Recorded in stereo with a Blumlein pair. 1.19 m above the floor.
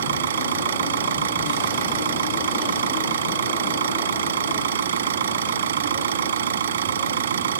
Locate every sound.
0.0 s an engine running: 65° right